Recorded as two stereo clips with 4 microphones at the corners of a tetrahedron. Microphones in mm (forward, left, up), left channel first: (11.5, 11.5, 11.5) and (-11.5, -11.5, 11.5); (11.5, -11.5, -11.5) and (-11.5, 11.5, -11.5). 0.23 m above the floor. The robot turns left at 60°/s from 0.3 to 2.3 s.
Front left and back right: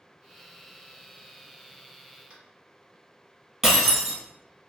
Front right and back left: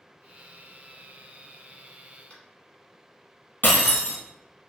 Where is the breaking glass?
55° right, 1.9 m.